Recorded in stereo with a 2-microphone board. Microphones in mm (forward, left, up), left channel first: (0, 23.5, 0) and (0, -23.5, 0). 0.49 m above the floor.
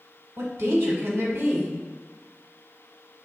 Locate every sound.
0.4 s a woman speaking: 60° right (ahead or behind), 1.2 m